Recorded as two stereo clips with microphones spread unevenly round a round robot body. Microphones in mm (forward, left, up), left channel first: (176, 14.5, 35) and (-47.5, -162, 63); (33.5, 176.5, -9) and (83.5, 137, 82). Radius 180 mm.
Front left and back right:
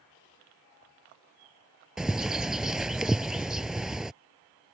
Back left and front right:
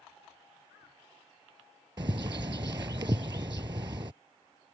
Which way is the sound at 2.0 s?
55° right.